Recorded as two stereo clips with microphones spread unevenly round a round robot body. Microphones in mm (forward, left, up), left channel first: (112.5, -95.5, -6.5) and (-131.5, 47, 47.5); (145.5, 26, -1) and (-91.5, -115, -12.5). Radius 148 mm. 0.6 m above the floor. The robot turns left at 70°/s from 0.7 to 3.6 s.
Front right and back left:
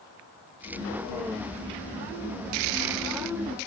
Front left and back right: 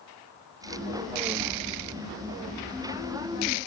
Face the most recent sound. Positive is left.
No sound to turn to.